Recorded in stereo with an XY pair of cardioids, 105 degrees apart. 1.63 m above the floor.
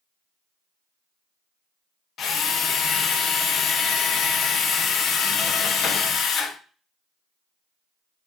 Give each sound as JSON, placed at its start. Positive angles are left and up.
{"t": 2.2, "sound": "a drill", "azimuth_deg": 65, "distance_m": 1.5}